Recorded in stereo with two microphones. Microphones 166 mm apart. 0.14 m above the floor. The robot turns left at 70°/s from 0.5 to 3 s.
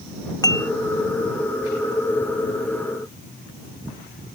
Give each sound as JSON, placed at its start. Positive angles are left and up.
{"t": 0.4, "sound": "dishes clattering", "side_deg": 20}